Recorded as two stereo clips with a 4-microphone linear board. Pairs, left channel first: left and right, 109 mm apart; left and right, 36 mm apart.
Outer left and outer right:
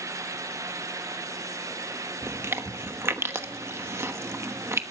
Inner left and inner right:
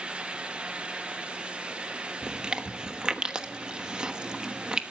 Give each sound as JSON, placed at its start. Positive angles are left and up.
{"t": 2.2, "sound": "chewing", "side_deg": -25, "distance_m": 1.0}